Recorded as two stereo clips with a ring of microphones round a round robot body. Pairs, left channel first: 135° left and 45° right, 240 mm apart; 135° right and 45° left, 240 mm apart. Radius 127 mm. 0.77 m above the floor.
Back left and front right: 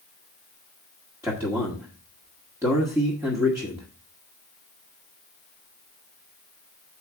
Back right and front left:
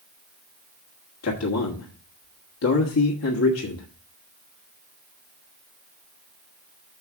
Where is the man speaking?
125° right, 1.6 m.